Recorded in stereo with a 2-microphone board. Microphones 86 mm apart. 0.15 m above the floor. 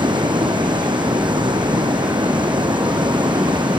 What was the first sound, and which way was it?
Running water, 60° right (ahead or behind).